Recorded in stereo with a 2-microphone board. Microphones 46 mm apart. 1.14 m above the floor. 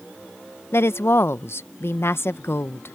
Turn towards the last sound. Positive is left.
turn(degrees=60)  # may be behind; listen again after turning